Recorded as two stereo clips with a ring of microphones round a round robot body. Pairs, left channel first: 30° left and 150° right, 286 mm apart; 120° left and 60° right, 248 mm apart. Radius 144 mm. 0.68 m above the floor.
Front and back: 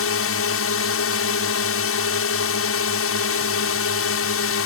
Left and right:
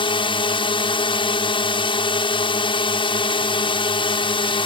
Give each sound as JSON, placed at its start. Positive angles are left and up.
{"t": 0.0, "sound": "a drone", "azimuth_deg": 55}